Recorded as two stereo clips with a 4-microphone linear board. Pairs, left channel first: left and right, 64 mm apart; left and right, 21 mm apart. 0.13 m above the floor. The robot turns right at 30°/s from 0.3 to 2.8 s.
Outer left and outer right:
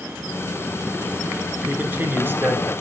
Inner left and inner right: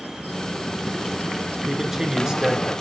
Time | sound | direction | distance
1.6 | a man speaking | 140° right | 1.5 m